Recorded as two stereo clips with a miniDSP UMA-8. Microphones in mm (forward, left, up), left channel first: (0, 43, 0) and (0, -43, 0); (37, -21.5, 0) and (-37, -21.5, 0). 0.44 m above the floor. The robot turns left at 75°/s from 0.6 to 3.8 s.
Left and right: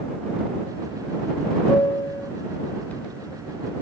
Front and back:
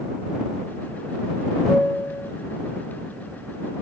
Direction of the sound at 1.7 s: 85° left.